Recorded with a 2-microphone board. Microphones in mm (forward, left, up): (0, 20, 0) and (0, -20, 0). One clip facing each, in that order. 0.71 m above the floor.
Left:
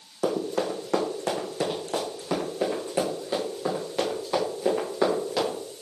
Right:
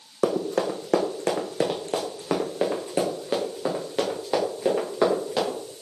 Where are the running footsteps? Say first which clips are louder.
Right 3 dB; 60° right (ahead or behind), 1.9 m; by 5.6 s 25° right (ahead or behind), 4.5 m.